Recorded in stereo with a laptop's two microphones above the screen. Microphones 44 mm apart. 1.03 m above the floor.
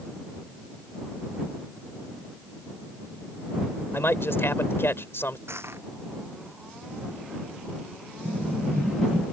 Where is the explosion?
25° right (ahead or behind).